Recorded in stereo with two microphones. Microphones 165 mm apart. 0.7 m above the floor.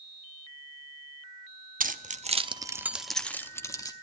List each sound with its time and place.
1.8 s keys jangling: 55° right (ahead or behind), 0.7 m; by 3.9 s 20° left (ahead or behind), 1.0 m